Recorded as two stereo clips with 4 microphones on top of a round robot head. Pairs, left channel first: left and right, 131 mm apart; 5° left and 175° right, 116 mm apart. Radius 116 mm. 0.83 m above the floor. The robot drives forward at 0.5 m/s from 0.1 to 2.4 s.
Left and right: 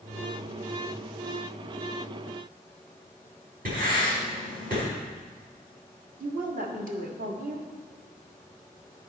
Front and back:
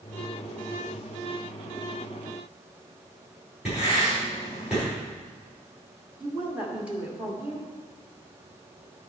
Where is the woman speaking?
95° right, 1.6 m.